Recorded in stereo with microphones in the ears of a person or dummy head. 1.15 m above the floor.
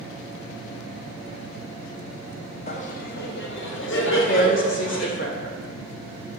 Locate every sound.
2.7 s laughter: 30° left (ahead or behind), 0.7 m; by 5.1 s 70° left (ahead or behind), 1.9 m
4.1 s a woman speaking: 40° left (ahead or behind), 1.1 m